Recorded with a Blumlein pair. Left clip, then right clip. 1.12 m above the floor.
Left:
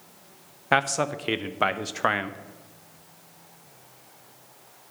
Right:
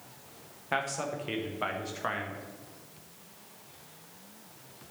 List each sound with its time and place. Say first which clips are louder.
0.7 s a man speaking: left 9 dB; 30° left, 0.8 m